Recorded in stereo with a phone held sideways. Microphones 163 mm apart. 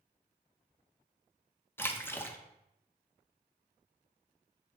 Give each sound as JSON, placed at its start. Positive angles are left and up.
{"t": 1.8, "sound": "a splash", "side_deg": 15, "distance_m": 0.7}